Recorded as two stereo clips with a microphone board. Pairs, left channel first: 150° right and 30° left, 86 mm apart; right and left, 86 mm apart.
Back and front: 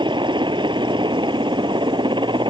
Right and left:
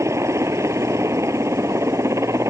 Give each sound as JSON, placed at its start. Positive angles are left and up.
{"t": 0.0, "sound": "a helicopter", "azimuth_deg": 35}